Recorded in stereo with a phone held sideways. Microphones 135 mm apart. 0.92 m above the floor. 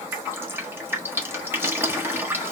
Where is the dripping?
15° right (ahead or behind), 1.3 m.